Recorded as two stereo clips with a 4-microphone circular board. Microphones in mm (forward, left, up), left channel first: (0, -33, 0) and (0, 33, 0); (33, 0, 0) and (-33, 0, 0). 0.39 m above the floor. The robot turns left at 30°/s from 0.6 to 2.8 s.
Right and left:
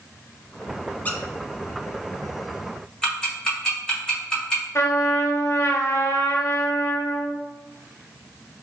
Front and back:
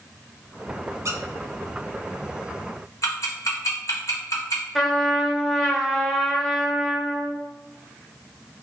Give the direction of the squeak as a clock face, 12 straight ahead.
5 o'clock.